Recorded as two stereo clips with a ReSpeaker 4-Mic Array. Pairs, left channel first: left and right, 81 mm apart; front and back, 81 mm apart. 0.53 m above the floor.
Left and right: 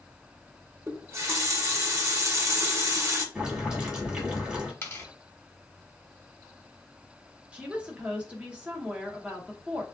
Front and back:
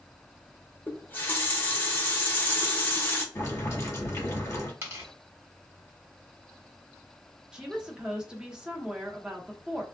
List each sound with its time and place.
0.9 s a running tap: 55° right, 0.7 m
3.4 s boiling: 20° right, 1.4 m
4.8 s tearing paper: 135° left, 1.2 m
7.5 s a woman speaking: 125° right, 0.7 m